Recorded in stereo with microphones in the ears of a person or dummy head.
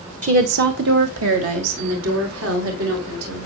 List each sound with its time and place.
0.2 s a woman speaking: 40° right (ahead or behind), 0.9 m; by 3.5 s 90° right, 5 m